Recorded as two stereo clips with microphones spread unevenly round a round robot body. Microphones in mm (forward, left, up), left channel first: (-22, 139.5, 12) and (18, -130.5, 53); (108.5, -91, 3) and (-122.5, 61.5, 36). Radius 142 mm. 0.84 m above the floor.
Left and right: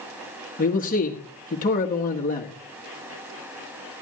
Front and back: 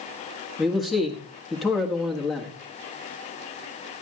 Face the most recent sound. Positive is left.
turn(degrees=50)